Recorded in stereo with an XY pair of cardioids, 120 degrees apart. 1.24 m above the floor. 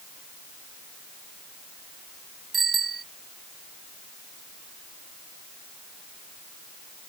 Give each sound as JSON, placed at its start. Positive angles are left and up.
{"t": 2.5, "sound": "a bicycle bell", "azimuth_deg": -30}